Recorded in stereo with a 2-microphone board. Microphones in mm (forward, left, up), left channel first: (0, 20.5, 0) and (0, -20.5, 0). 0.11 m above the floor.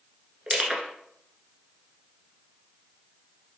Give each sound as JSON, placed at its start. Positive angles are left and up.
{"t": 0.5, "sound": "crushing", "side_deg": -25, "distance_m": 0.8}